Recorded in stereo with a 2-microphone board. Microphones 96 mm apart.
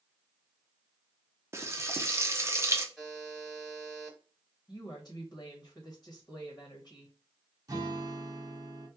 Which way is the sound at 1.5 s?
25° right (ahead or behind).